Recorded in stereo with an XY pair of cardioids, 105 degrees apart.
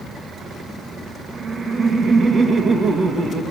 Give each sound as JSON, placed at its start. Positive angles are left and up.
{"t": 1.4, "sound": "laughter", "azimuth_deg": -40, "distance_m": 2.0}